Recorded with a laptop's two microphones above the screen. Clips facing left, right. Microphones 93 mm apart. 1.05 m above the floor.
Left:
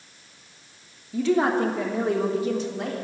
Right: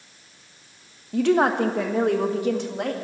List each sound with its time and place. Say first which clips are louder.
1.1 s a woman speaking: right 2 dB; 60° right (ahead or behind), 1.2 m